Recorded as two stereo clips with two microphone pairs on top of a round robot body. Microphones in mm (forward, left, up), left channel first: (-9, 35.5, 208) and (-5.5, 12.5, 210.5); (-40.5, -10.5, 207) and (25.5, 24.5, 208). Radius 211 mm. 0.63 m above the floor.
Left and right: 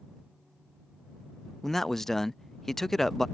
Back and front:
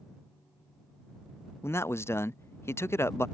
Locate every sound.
1.6 s a man speaking: 165° left